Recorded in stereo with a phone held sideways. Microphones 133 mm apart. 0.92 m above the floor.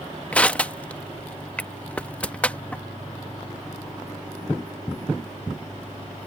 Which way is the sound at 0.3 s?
10° left (ahead or behind).